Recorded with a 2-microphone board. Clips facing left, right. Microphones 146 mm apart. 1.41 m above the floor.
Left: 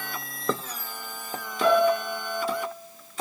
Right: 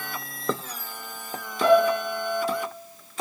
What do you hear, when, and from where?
1.6 s a piano: 40° right (ahead or behind), 2.5 m